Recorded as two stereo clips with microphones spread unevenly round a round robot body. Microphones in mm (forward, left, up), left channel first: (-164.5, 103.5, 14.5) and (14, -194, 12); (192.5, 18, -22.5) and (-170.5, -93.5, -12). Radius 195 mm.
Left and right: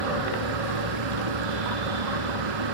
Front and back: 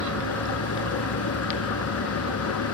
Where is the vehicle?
35° right.